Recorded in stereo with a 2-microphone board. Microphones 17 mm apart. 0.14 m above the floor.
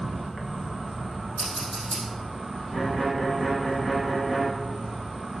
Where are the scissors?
50° left (ahead or behind), 3.5 m.